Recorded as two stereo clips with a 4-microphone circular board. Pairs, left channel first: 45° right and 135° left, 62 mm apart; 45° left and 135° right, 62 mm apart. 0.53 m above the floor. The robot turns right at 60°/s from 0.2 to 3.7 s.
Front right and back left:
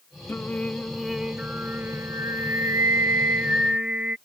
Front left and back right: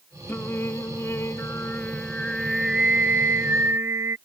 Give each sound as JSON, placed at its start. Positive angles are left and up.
{"t": 0.3, "sound": "singing", "azimuth_deg": 0}